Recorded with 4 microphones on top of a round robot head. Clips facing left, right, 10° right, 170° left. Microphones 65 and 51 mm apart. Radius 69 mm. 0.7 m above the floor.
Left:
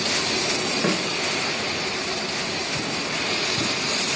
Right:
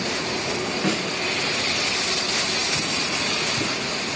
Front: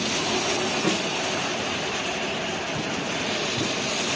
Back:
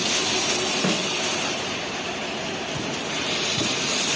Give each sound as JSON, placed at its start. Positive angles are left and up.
{"t": 0.8, "sound": "a snare drum", "azimuth_deg": 155, "distance_m": 1.3}